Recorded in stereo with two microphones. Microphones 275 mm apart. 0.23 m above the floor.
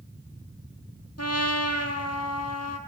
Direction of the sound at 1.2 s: 55° left (ahead or behind).